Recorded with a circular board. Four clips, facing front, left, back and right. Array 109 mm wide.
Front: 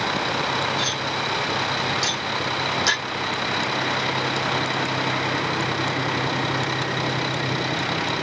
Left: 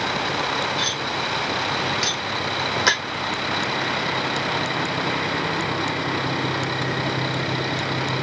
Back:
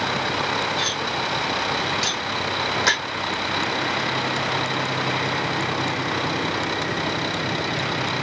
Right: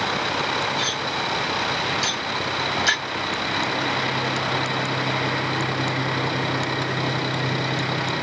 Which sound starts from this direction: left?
Cutlery clinking, at 0.8 s.